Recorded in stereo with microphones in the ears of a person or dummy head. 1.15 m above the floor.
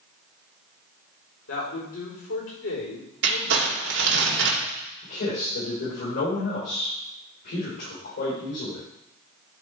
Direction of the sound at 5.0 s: 65° left (ahead or behind).